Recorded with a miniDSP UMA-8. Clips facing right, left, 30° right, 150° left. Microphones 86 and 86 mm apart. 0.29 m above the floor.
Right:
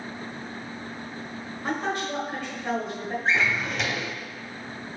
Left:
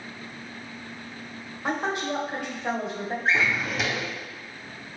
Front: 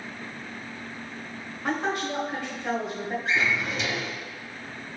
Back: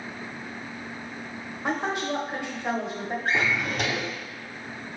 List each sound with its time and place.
1.6 s a woman speaking: 125° left, 1.0 m
3.2 s a drawer: 175° left, 0.6 m